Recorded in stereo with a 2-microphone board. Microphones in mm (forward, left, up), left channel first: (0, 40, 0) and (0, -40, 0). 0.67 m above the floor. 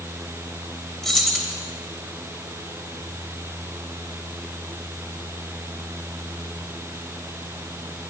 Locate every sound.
1.0 s keys jangling: 5° left (ahead or behind), 1.9 m